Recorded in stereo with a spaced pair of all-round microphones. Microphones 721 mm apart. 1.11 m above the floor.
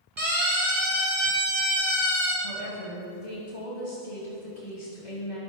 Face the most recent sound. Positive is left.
turn(degrees=75)  # may be behind; listen again after turning